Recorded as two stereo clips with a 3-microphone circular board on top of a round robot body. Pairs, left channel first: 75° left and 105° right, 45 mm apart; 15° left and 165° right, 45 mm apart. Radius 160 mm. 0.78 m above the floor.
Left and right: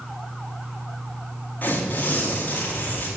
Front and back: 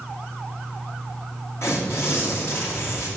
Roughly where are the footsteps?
No footsteps in this recording.